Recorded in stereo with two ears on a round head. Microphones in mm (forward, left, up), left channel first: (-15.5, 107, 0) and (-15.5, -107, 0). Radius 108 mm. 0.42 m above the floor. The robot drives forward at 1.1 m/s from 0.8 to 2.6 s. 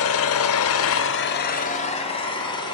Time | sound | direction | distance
0.0 | an engine running | 65° left (ahead or behind) | 0.8 m